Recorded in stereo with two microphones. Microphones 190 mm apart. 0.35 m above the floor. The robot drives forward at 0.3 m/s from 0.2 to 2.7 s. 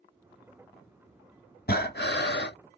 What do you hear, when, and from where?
1.7 s breathing: 55° left (ahead or behind), 0.7 m; by 2.5 s 65° left (ahead or behind), 0.6 m